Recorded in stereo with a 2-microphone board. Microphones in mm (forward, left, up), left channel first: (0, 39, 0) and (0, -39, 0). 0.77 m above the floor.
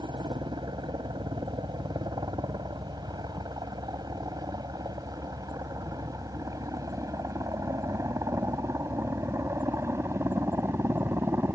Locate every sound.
0.0 s a helicopter: 70° right (ahead or behind); by 11.6 s 30° right (ahead or behind)